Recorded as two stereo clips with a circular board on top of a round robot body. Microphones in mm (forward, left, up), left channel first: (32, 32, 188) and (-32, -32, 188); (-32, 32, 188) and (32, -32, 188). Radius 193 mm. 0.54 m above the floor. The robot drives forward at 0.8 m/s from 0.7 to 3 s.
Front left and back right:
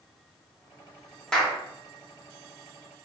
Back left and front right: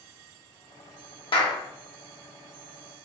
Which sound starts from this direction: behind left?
A clap, at 1.3 s.